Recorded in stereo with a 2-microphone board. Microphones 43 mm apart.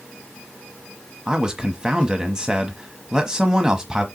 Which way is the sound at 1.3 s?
15° right (ahead or behind).